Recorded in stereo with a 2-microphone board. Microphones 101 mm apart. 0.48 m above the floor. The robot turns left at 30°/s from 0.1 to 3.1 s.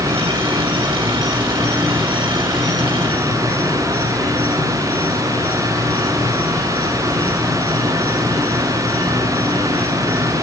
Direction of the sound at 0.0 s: 105° right.